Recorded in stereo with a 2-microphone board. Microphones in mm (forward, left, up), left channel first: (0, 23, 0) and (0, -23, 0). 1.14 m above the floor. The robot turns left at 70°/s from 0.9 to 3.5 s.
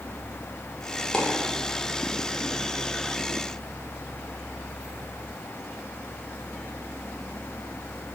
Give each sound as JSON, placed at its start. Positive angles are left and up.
{"t": 1.1, "sound": "a dropped coin", "side_deg": 15, "distance_m": 0.8}